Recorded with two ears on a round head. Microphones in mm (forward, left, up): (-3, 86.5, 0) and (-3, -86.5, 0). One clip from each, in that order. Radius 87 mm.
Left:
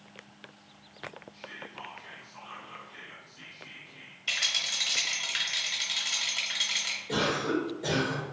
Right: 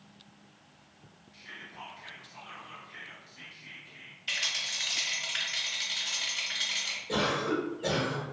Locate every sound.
1.3 s whispering: 15° right (ahead or behind), 1.3 m
4.3 s a rattle: 30° left (ahead or behind), 0.9 m
7.1 s a cough: 20° left (ahead or behind), 1.1 m